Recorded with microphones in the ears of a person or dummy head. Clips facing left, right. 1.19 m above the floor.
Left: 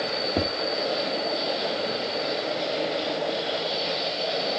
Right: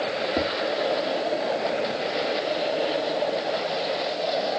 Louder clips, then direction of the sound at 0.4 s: Even; centre (ahead or behind).